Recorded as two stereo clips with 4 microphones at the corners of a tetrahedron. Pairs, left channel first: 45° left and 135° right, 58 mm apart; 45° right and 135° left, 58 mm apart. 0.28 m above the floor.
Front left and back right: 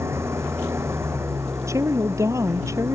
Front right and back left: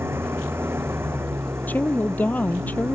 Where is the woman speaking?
105° right.